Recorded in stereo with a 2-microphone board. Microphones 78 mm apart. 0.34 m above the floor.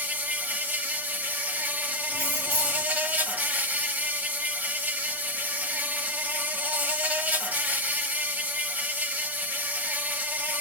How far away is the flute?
No flute in this recording.